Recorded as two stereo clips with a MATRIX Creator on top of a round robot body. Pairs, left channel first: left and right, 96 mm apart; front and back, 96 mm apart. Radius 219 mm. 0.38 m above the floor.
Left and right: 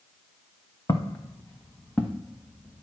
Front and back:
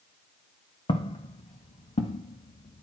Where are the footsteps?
35° left, 1.5 m; by 2.8 s 5° left, 2 m.